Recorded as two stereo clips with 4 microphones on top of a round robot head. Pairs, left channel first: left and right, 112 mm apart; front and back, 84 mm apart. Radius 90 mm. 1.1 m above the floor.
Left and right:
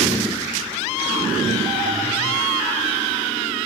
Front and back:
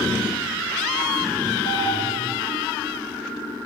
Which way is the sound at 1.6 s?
120° left.